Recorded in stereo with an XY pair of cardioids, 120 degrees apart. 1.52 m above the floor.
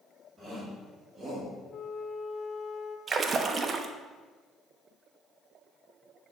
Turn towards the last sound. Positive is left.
turn(degrees=-35)